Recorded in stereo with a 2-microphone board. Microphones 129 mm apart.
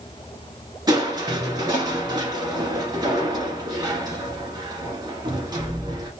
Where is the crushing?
30° right (ahead or behind), 1.3 m.